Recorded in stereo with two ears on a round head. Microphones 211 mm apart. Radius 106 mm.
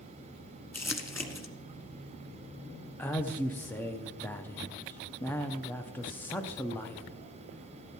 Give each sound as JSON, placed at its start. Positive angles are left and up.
{"t": 0.7, "sound": "crumpling", "side_deg": 10, "distance_m": 1.3}
{"t": 3.0, "sound": "a man speaking", "side_deg": 10, "distance_m": 0.6}